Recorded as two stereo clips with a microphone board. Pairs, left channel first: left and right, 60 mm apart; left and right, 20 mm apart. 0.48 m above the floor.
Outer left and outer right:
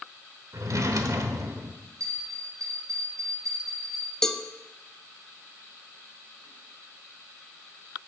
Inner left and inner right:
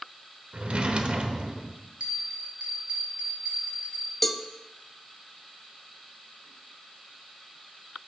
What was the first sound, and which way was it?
A drawer, 60° right (ahead or behind).